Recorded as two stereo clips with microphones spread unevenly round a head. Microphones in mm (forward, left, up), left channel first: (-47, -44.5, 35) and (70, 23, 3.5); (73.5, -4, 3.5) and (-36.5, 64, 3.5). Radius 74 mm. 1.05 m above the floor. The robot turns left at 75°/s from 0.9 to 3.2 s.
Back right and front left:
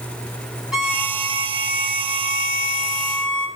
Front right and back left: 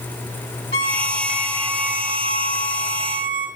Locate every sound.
0.7 s a violin: 60° right, 3.5 m; by 3.5 s 130° left, 3.5 m